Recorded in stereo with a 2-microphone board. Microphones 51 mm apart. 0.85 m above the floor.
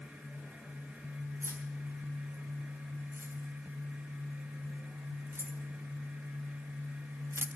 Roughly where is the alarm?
I don't hear an alarm.